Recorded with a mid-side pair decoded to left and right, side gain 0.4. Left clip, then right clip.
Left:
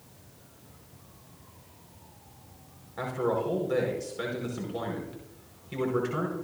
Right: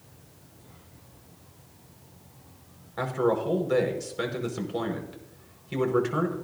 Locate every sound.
3.0 s a man speaking: 40° right, 5 m